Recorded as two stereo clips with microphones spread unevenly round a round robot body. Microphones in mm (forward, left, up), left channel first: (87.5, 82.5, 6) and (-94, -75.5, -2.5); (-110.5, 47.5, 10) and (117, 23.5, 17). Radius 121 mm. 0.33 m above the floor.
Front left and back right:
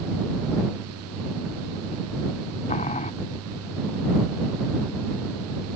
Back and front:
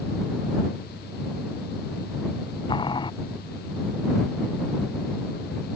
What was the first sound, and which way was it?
Boiling, 105° left.